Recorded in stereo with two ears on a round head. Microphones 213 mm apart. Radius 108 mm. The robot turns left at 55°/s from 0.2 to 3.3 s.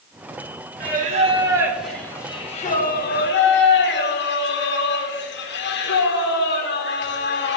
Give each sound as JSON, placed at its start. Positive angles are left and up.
{"t": 0.8, "sound": "singing", "azimuth_deg": -120, "distance_m": 1.0}